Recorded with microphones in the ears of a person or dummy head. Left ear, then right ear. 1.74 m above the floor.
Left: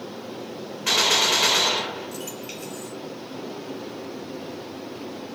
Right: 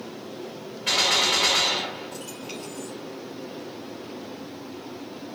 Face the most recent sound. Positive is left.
turn(degrees=45)  # may be behind; listen again after turning